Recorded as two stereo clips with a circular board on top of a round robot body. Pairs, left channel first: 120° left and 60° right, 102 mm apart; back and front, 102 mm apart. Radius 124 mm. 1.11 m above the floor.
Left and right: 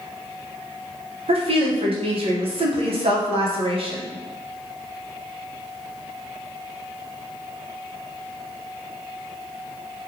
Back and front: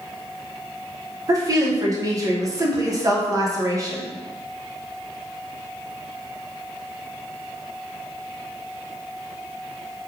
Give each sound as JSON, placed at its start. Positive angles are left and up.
{"t": 1.3, "sound": "a woman speaking", "azimuth_deg": -55, "distance_m": 0.9}